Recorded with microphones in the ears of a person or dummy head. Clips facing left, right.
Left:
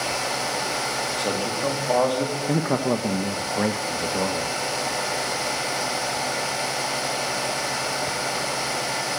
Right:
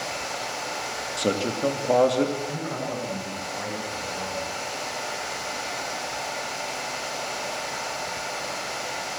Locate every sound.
1.2 s a man speaking: 20° right (ahead or behind), 2.5 m
2.5 s a man speaking: 65° left (ahead or behind), 1.4 m